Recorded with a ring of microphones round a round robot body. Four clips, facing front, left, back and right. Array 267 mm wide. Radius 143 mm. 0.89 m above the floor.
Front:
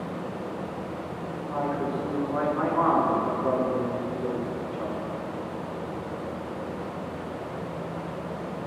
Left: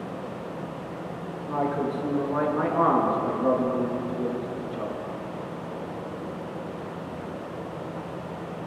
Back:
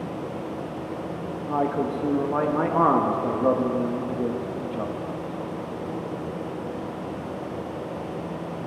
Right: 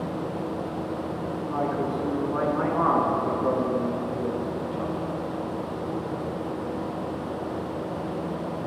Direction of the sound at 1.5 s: 170° left.